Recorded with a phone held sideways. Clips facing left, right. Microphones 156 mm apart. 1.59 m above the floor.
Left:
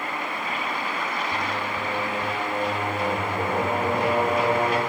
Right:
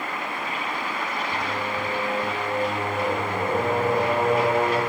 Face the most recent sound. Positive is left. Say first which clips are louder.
# right 1 dB
turn(degrees=15)  # may be behind; listen again after turning